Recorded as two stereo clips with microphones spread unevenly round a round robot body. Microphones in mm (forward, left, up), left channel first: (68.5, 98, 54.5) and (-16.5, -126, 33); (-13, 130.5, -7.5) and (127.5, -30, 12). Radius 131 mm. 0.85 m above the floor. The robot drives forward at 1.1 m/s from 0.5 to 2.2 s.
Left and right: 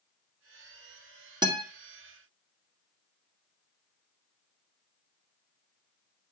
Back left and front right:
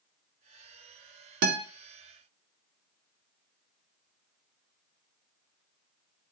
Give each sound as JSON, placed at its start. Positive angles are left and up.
{"t": 1.4, "sound": "a guitar", "azimuth_deg": -40, "distance_m": 2.0}